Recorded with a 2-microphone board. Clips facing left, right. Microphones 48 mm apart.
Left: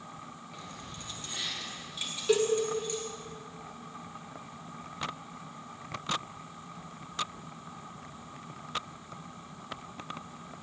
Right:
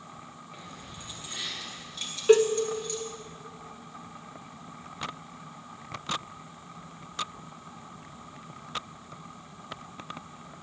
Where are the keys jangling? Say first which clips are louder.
Even; 20° right (ahead or behind), 2.5 m; by 3.0 s 30° left (ahead or behind), 2.5 m.